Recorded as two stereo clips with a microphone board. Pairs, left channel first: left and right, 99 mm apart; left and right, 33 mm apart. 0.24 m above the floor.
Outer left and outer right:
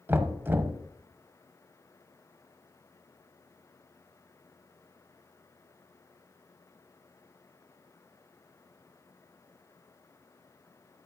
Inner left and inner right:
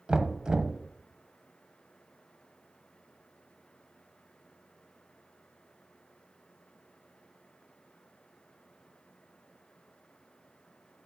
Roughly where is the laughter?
I don't hear laughter.